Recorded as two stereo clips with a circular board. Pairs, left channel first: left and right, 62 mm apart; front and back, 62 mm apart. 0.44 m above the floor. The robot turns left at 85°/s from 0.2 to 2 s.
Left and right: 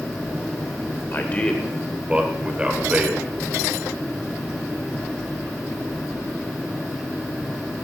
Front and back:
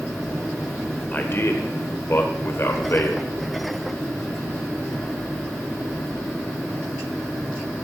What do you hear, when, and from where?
1.1 s a man speaking: 50° left, 1.7 m; by 3.3 s 25° right, 1.7 m